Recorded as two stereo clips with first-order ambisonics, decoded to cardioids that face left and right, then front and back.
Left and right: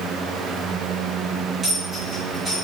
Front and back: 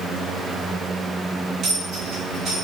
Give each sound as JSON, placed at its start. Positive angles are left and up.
{"t": 1.6, "sound": "a dropped coin", "azimuth_deg": -160, "distance_m": 1.3}